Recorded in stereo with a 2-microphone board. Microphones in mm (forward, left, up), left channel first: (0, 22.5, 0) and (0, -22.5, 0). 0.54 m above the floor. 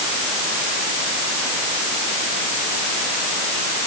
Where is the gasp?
No gasp in this recording.